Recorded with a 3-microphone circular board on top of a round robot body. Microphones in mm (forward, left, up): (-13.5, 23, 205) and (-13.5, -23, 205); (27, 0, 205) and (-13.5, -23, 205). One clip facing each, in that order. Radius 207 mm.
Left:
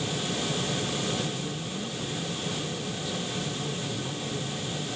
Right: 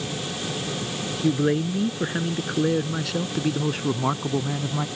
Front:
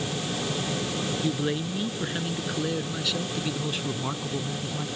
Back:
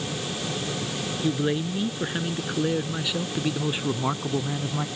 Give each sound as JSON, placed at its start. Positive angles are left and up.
{"t": 1.2, "sound": "a man speaking", "azimuth_deg": -70}